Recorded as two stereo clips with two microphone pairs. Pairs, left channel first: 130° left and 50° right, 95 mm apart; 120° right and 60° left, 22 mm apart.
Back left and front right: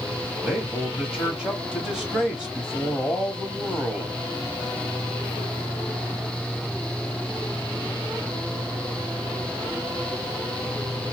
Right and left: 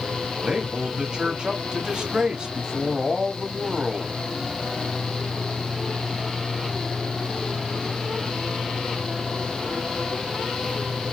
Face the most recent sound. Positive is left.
turn(degrees=35)